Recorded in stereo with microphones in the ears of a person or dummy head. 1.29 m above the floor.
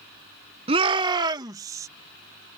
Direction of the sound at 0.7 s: 30° right (ahead or behind).